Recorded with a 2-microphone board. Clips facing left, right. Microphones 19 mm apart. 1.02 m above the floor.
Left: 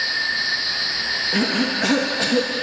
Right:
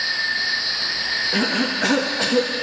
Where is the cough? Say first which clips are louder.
Even; centre (ahead or behind), 1.5 m.